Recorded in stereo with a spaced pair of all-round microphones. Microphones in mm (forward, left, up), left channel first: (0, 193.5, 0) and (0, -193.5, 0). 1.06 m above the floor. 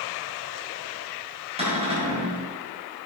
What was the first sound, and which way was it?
A cupboard door, 15° right (ahead or behind).